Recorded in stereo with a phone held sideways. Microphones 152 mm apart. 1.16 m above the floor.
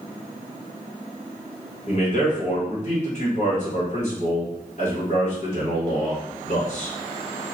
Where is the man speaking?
50° left (ahead or behind), 1.5 m.